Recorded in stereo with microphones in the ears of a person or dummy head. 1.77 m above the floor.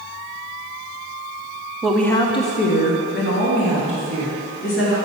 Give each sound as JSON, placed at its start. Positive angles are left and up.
{"t": 1.8, "sound": "a woman speaking", "side_deg": -10, "distance_m": 0.6}